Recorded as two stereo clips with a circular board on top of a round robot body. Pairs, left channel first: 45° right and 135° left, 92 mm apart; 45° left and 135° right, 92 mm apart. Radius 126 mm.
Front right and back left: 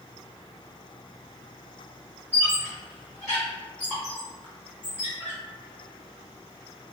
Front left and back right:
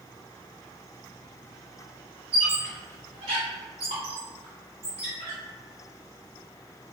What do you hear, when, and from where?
2.3 s a squeak: 115° right, 1.5 m